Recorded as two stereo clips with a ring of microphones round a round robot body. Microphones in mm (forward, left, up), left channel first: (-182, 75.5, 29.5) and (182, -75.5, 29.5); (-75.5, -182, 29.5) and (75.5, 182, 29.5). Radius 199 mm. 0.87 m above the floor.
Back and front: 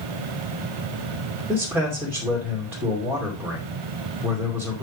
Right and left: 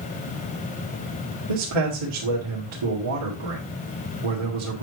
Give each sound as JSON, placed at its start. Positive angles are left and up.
{"t": 1.5, "sound": "a man speaking", "azimuth_deg": 65, "distance_m": 2.5}